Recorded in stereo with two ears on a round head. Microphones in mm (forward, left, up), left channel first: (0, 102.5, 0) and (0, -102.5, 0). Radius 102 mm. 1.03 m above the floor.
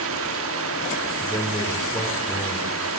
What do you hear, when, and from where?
0.0 s running water: 65° right (ahead or behind), 2.0 m
1.1 s a man speaking: 10° left (ahead or behind), 4.5 m